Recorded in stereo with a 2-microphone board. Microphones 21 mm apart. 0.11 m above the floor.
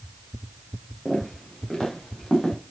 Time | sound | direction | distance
1.1 | footsteps | 30° left (ahead or behind) | 7 m